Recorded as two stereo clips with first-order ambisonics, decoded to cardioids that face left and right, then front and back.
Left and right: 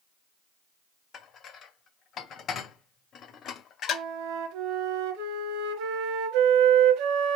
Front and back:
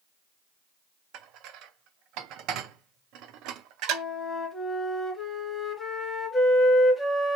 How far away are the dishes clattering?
About 0.6 m.